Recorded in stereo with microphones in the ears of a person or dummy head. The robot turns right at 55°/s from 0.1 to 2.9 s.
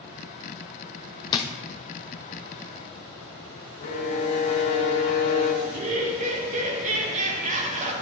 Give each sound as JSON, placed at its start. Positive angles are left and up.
{"t": 1.3, "sound": "a drawer", "side_deg": 20, "distance_m": 0.6}
{"t": 3.8, "sound": "a violin", "side_deg": 40, "distance_m": 1.2}
{"t": 5.6, "sound": "laughter", "side_deg": -45, "distance_m": 1.6}